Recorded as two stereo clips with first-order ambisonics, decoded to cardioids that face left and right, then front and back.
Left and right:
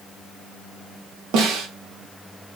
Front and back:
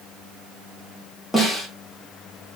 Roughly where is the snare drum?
Right.